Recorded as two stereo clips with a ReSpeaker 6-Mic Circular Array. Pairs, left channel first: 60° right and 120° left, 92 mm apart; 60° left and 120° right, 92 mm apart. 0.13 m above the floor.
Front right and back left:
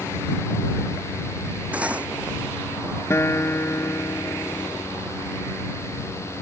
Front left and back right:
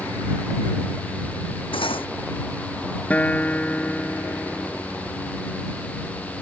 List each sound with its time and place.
1.7 s cutlery clinking: 45° left
3.1 s a guitar: 10° right